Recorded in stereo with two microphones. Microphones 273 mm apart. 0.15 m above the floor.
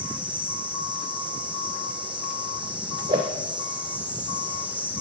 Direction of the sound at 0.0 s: 5° right (ahead or behind).